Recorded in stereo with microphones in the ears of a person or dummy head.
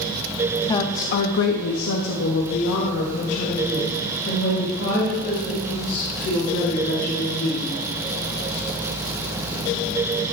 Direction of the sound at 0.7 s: 25° left (ahead or behind).